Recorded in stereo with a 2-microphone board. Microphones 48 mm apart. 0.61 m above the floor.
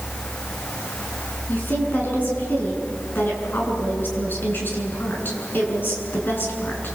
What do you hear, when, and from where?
1.5 s a woman speaking: 40° left (ahead or behind), 7.5 m